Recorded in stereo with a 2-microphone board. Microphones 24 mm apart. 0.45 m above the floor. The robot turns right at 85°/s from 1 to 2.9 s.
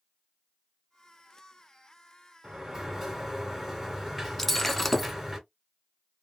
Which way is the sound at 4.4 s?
5° left (ahead or behind).